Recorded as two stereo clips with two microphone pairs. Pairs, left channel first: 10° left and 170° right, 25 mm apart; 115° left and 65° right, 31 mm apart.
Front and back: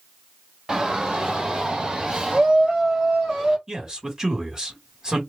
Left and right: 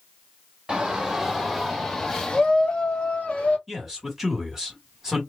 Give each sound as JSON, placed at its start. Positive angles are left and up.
{"t": 0.7, "sound": "a shout", "azimuth_deg": -130, "distance_m": 1.3}
{"t": 3.7, "sound": "a man speaking", "azimuth_deg": -145, "distance_m": 1.7}